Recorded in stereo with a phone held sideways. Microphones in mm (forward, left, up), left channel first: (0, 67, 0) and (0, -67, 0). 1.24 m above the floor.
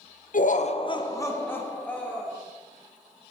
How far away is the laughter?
About 0.6 m.